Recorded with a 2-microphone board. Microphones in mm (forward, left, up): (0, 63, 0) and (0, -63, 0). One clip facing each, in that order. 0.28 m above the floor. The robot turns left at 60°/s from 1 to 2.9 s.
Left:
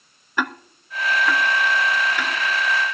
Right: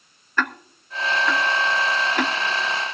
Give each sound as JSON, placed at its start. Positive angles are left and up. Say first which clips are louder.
{"t": 0.4, "sound": "ticking", "louder": "even", "side_deg": 10, "distance_m": 0.6}